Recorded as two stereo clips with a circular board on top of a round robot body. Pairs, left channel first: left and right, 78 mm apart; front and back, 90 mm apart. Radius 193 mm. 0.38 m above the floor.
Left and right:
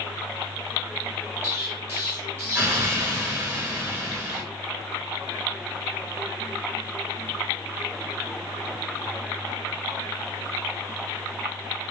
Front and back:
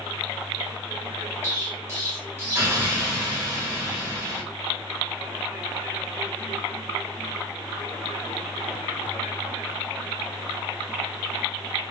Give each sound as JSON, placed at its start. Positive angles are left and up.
{"t": 1.4, "sound": "an explosion", "azimuth_deg": -135, "distance_m": 1.8}